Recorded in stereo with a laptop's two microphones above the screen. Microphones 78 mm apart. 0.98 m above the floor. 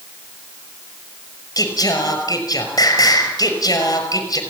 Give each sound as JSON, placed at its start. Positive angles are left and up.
{"t": 1.6, "sound": "singing", "side_deg": 50, "distance_m": 5.5}